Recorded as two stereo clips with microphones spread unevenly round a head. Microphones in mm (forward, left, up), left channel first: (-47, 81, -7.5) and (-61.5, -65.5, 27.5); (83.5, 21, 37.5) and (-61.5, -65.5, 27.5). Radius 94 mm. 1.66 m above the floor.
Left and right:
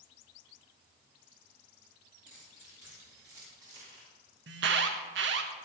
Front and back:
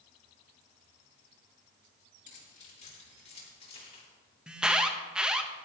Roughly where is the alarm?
Ahead right.